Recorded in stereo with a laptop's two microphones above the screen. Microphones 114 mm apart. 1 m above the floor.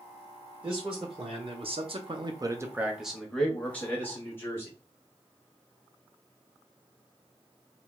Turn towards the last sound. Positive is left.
turn(degrees=20)  # may be behind; listen again after turning